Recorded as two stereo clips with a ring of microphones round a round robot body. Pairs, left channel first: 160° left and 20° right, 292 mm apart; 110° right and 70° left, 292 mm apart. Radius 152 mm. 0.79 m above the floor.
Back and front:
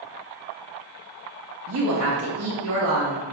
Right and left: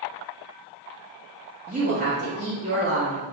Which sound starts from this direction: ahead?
A woman speaking, at 1.7 s.